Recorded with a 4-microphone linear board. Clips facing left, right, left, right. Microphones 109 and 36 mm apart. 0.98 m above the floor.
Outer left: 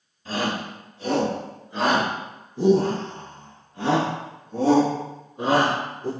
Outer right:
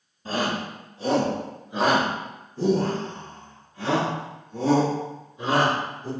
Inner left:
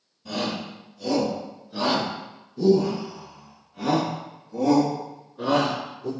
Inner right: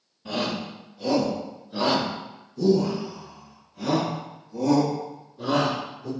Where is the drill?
I don't hear a drill.